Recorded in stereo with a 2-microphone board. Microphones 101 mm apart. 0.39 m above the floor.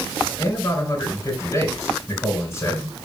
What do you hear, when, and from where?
0.4 s a man speaking: 30° left (ahead or behind), 5 m